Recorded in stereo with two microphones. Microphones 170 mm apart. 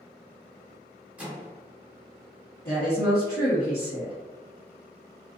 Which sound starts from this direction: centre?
A microwave, at 1.2 s.